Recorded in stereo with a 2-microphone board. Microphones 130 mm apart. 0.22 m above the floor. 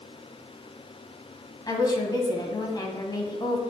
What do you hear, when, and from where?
1.7 s a woman speaking: 35° left (ahead or behind), 1.2 m